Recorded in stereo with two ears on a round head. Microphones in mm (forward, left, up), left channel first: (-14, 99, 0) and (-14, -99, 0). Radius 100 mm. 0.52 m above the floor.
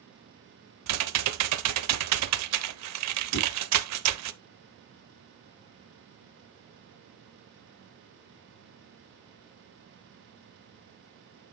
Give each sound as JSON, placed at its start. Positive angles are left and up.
{"t": 0.9, "sound": "typing on a keyboard", "side_deg": -85, "distance_m": 0.6}
{"t": 3.3, "sound": "a whoosh", "side_deg": 75, "distance_m": 4.0}